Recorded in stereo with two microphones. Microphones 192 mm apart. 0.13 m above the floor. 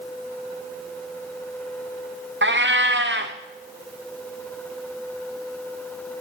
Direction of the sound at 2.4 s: 65° right (ahead or behind).